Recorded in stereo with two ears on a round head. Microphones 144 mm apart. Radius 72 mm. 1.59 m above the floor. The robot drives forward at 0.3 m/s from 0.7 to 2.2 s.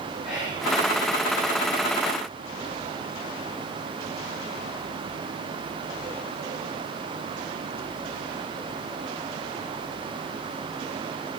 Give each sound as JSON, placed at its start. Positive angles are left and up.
{"t": 0.2, "sound": "whispering", "side_deg": -5, "distance_m": 5.5}